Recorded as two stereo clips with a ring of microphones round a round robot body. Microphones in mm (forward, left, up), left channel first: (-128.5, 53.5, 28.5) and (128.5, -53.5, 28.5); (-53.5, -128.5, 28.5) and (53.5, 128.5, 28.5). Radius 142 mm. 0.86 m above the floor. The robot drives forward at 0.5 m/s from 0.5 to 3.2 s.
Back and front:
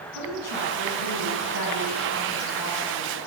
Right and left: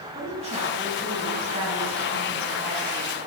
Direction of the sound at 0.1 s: 135° left.